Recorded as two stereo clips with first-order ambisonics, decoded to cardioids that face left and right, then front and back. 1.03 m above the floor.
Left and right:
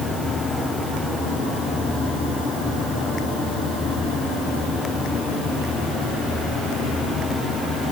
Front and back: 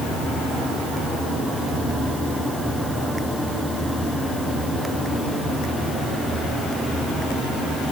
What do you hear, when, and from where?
Only background noise.